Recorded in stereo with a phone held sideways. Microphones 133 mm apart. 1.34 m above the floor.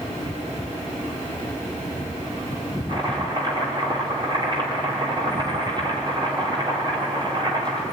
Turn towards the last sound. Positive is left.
turn(degrees=-40)  # may be behind; listen again after turning